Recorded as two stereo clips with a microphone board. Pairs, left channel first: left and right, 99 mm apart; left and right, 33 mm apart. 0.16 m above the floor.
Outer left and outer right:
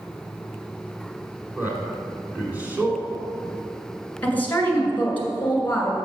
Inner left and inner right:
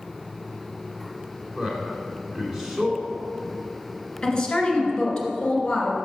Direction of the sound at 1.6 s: 15° right (ahead or behind).